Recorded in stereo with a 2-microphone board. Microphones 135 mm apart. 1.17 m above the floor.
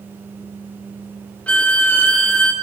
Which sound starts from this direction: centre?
A violin, at 1.5 s.